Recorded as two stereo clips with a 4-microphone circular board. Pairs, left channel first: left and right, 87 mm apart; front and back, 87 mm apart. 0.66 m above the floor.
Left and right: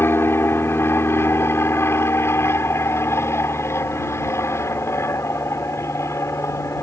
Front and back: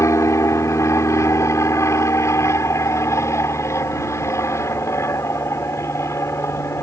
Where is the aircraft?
40° left; by 6.8 s 45° left.